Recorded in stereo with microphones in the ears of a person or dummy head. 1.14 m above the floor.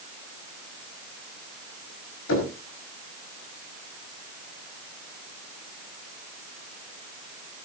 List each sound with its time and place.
2.3 s knocking: 85° left, 5.5 m